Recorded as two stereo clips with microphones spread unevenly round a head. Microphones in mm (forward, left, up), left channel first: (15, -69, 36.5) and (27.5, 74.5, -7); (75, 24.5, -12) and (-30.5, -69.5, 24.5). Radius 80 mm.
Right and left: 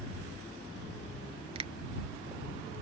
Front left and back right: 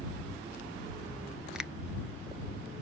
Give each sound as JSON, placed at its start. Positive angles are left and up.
{"t": 1.6, "sound": "a finger snap", "azimuth_deg": 150}